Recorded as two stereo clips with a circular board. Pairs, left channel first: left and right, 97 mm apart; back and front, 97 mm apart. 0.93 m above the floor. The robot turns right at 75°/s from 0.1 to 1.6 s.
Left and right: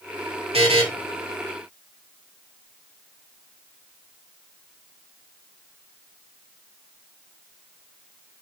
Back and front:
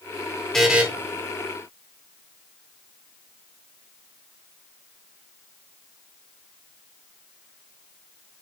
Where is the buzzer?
95° right, 1.7 m; by 0.8 s 70° right, 1.7 m.